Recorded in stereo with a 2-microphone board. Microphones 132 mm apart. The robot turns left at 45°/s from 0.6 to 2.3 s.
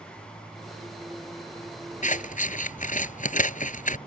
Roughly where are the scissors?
Left.